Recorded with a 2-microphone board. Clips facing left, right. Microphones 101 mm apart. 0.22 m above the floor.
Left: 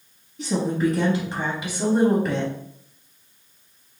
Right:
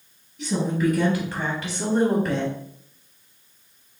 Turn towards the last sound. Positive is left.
turn(degrees=-5)  # may be behind; listen again after turning